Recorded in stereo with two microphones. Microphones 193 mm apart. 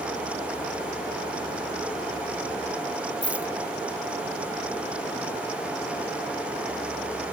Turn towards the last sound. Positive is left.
turn(degrees=-5)  # may be behind; listen again after turning